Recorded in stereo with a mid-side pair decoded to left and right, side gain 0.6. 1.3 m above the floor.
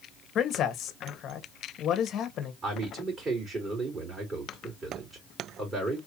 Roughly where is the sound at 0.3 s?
Ahead left.